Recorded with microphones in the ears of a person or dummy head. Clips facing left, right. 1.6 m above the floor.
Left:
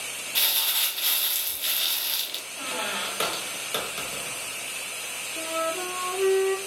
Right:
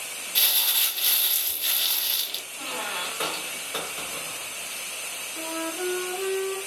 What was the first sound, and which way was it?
Crumpling, centre (ahead or behind).